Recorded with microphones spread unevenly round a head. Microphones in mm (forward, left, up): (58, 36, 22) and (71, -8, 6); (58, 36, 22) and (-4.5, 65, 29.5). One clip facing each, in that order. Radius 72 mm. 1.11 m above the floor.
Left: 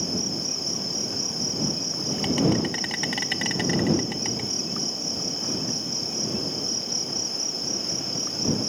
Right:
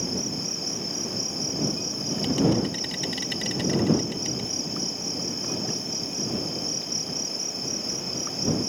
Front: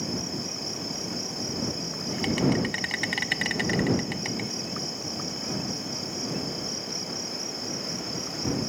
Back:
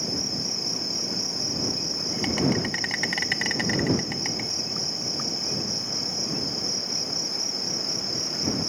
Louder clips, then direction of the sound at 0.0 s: Left 1 dB, even; 75° left.